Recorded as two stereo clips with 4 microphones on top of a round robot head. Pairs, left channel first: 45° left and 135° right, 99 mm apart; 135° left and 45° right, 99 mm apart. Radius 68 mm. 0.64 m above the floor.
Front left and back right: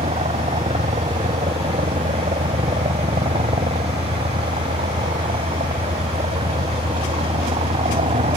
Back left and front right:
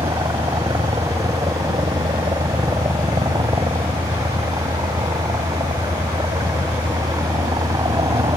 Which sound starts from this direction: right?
A helicopter, at 0.0 s.